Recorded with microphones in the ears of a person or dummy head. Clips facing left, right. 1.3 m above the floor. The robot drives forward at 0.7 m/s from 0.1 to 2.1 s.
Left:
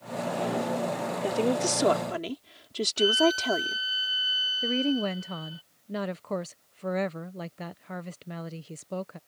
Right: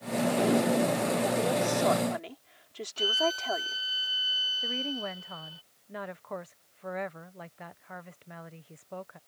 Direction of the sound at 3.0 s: Centre (ahead or behind).